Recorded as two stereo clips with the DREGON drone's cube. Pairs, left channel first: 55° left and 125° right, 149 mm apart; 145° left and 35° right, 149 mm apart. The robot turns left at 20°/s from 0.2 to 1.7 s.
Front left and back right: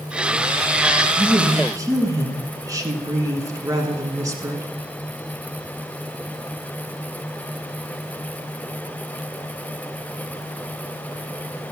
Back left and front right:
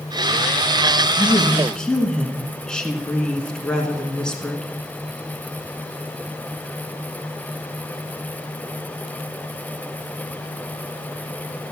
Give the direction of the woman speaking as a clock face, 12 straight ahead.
4 o'clock.